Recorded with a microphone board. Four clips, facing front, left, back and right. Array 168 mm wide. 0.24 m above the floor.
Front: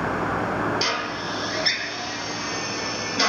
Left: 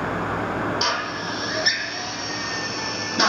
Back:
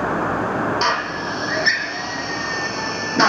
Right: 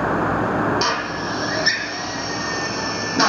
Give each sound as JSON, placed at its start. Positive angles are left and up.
{"t": 0.8, "sound": "a drill", "azimuth_deg": -160, "distance_m": 0.7}